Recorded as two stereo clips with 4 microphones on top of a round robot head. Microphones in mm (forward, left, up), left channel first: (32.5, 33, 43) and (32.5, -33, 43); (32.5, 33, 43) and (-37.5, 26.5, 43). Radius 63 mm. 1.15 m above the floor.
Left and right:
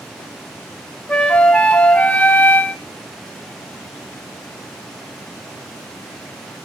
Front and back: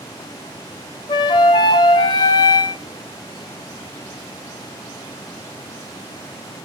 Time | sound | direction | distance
1.1 | a flute | 20° left | 0.9 m